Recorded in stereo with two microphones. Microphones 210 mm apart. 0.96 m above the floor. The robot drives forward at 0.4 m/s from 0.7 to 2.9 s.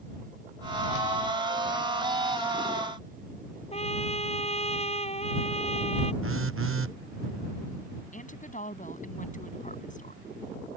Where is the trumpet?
30° left (ahead or behind).